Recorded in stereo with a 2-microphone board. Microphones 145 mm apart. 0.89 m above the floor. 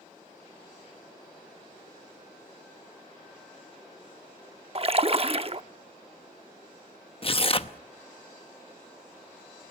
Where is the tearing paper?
40° left (ahead or behind), 0.9 m.